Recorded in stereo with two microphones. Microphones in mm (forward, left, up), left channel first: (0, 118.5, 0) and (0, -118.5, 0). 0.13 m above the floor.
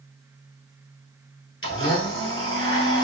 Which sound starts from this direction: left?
A blender, at 1.6 s.